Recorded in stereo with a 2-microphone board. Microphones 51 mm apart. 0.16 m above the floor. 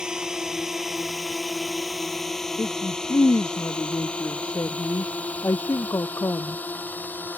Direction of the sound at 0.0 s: 15° right (ahead or behind).